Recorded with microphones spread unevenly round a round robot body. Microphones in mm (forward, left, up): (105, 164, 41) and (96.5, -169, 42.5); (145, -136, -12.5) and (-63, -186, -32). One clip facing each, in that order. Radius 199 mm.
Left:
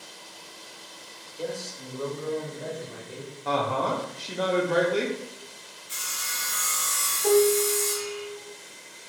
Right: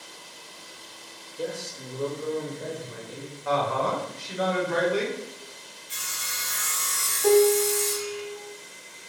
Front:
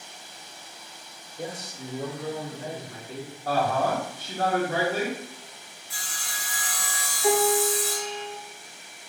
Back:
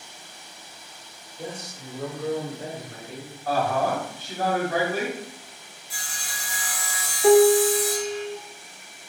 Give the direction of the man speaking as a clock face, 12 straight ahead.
1 o'clock.